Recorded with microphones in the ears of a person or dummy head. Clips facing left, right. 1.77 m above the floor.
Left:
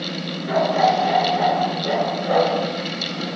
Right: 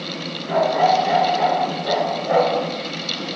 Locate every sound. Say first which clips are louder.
0.5 s a dog barking: right 1 dB; 35° left (ahead or behind), 7.5 m; by 2.6 s 50° left (ahead or behind), 9 m